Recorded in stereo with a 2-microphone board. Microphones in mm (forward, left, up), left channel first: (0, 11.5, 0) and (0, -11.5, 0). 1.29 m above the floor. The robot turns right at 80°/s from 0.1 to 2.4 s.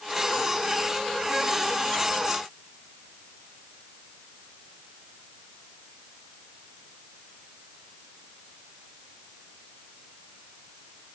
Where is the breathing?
I don't hear breathing.